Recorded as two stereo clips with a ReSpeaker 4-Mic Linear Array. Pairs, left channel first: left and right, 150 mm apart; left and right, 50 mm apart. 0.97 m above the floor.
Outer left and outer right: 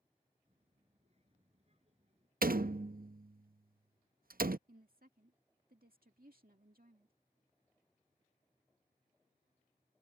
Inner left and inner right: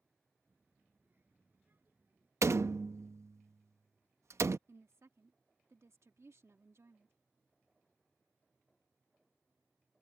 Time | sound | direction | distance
0.5 | a child speaking | 45° right (ahead or behind) | ?
2.4 | a door slam | 75° right (ahead or behind) | ?
4.7 | a woman speaking | 75° right (ahead or behind) | ?